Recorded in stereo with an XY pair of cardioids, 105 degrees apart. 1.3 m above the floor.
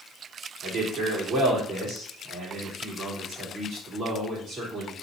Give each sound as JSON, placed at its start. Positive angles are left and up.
{"t": 0.6, "sound": "a man speaking", "azimuth_deg": -55, "distance_m": 3.5}